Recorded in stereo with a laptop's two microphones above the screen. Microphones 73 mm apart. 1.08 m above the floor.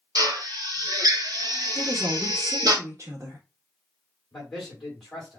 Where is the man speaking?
5° left (ahead or behind), 3 m.